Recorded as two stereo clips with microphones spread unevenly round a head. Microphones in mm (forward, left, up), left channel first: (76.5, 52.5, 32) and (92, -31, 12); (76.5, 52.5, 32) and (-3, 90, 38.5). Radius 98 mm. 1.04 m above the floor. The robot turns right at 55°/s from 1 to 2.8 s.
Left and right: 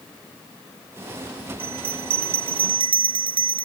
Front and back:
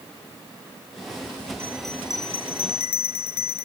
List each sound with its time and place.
1.6 s a bell: 130° right; by 3.6 s 65° right